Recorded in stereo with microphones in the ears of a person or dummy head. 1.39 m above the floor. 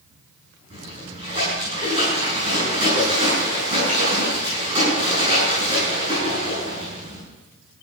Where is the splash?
35° right (ahead or behind), 9 m.